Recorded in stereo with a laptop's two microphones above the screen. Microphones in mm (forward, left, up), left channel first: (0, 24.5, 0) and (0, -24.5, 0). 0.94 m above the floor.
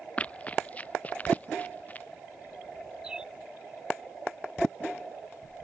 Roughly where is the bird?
Centre.